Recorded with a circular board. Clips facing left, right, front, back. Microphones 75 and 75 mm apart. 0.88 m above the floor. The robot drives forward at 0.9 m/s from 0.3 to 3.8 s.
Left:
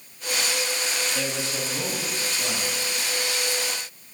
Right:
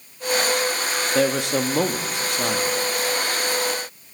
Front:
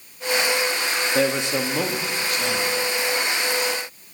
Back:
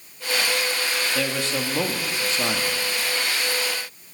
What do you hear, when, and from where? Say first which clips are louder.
1.1 s a man speaking: right 9 dB, front 4 dB; 55° right, 1.1 m; by 2.7 s 135° right, 1.2 m